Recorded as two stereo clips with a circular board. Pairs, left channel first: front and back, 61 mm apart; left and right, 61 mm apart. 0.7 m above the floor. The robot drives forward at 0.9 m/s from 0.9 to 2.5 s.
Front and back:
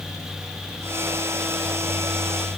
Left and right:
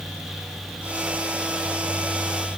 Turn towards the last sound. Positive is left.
No sound to turn to.